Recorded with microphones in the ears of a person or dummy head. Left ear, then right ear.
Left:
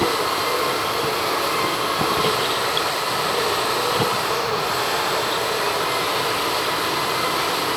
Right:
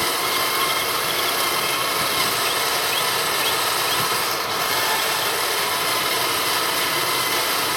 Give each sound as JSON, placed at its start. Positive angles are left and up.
{"t": 0.0, "sound": "a machine running", "side_deg": -60, "distance_m": 1.0}